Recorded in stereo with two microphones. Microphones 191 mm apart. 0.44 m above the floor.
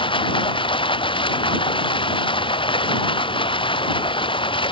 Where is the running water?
25° left (ahead or behind).